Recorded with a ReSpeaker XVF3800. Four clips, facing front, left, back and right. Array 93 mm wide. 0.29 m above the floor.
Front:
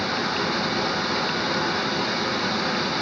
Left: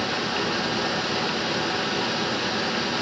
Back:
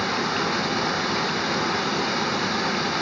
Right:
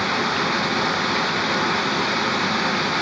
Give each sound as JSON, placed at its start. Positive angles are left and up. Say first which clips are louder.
{"t": 0.0, "sound": "running water", "louder": "right 4 dB, back 1 dB", "azimuth_deg": -95, "distance_m": 0.7}